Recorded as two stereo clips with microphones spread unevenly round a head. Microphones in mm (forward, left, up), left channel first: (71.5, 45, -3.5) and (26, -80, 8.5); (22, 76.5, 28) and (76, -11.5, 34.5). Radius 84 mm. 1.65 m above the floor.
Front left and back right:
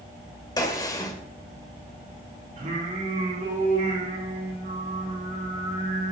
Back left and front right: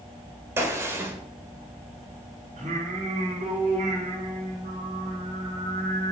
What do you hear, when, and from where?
0.6 s a gunshot: 10° left, 2.0 m
2.6 s singing: 90° right, 3.5 m